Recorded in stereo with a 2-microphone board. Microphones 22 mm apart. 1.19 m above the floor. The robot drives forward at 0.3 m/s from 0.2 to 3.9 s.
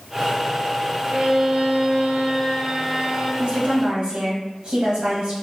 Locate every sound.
1.1 s a violin: 45° right (ahead or behind), 1.3 m; by 3.3 s 35° right (ahead or behind), 1.7 m
3.4 s a woman speaking: 50° right (ahead or behind), 2.0 m; by 5.3 s 45° right (ahead or behind), 2 m